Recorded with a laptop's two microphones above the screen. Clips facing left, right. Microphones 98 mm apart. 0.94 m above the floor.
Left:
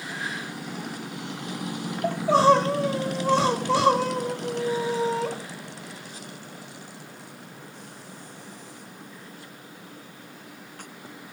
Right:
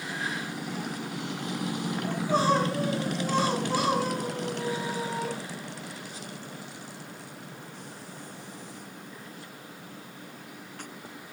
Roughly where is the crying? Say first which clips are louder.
Left 8 dB; left.